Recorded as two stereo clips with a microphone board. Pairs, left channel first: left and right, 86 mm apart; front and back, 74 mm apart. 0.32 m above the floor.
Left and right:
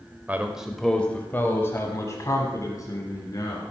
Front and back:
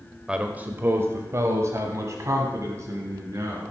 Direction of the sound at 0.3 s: 125° right.